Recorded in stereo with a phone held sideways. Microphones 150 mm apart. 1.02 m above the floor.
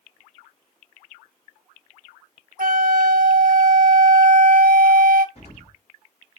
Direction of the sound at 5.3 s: 45° left (ahead or behind).